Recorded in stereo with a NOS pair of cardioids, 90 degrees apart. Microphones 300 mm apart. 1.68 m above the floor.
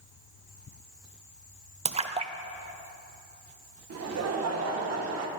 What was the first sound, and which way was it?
A splash, 20° right.